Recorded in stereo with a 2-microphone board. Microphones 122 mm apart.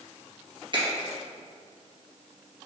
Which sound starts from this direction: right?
A finger snap, at 0.7 s.